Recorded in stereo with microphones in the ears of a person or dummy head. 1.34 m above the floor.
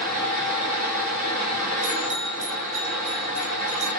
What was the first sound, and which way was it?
A fan, 45° right (ahead or behind).